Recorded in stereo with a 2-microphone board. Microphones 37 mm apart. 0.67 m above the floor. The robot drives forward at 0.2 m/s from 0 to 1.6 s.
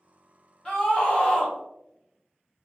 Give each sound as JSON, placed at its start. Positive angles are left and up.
{"t": 0.7, "sound": "a scream", "side_deg": 25, "distance_m": 0.9}